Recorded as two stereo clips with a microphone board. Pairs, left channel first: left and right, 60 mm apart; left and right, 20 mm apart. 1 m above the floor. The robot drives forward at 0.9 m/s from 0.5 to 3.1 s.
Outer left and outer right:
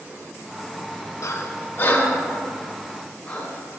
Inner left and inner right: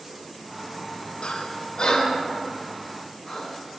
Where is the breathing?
55° left (ahead or behind), 0.6 m; by 3.5 s 15° left (ahead or behind), 1.9 m.